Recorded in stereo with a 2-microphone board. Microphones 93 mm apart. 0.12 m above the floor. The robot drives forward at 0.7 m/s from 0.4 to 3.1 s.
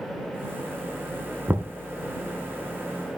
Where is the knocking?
25° right (ahead or behind), 1.0 m.